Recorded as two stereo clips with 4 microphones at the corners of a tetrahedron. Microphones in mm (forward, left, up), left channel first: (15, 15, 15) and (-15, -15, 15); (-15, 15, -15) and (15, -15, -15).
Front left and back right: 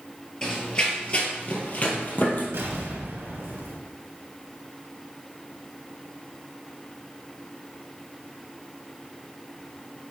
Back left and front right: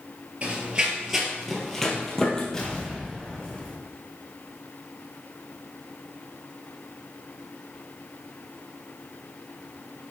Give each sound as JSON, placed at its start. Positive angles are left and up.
{"t": 0.4, "sound": "running footsteps", "azimuth_deg": -5, "distance_m": 1.6}
{"t": 2.5, "sound": "an explosion", "azimuth_deg": -150, "distance_m": 3.0}